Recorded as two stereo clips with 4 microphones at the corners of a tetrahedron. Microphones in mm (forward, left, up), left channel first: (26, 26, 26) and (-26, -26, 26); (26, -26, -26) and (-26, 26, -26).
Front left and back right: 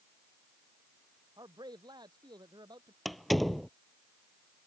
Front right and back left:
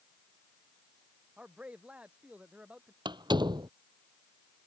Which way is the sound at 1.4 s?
150° right.